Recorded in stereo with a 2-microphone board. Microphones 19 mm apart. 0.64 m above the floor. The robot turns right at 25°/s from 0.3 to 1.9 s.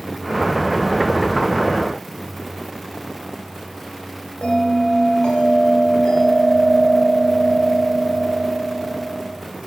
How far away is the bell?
About 2.5 m.